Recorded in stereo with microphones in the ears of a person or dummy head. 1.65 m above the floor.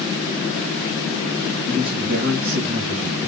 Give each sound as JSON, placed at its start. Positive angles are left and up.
{"t": 1.7, "sound": "a man speaking", "side_deg": -55, "distance_m": 2.5}